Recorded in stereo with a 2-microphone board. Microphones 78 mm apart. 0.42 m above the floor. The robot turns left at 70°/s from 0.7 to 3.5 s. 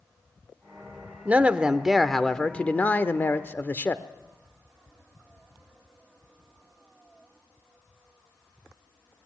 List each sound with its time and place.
1.2 s a man speaking: 20° right (ahead or behind), 0.8 m; by 4.0 s 25° left (ahead or behind), 0.8 m